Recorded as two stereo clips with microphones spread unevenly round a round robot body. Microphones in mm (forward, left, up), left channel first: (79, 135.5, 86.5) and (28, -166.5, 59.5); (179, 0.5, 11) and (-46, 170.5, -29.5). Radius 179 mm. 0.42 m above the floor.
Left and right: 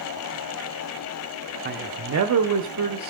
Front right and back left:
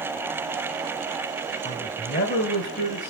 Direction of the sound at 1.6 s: 110° right.